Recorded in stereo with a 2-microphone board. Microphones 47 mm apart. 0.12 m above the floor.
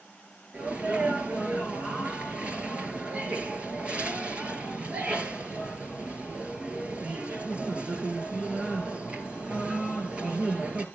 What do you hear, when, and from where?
0.5 s a sneeze: 25° right (ahead or behind), 3 m